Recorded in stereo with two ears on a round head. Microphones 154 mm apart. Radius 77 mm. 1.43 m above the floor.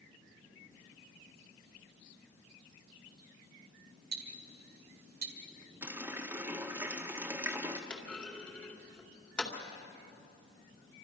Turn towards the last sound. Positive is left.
turn(degrees=10)  # may be behind; listen again after turning